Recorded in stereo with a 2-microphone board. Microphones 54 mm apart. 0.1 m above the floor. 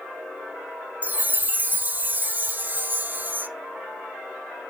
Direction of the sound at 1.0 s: 35° right (ahead or behind).